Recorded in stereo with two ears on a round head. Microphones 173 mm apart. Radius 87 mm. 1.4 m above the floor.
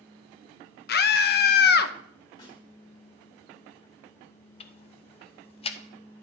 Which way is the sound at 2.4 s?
30° left (ahead or behind).